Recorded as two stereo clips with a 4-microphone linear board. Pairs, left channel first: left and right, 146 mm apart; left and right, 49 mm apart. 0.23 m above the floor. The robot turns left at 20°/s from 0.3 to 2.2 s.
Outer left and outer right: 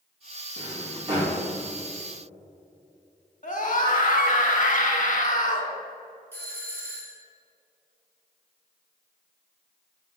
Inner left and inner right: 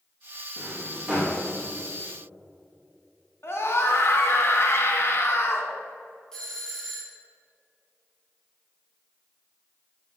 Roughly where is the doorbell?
Centre.